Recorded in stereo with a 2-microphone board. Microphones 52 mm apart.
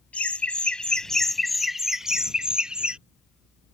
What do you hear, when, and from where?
0.1 s laughter: 30° left (ahead or behind); by 3.0 s 20° right (ahead or behind)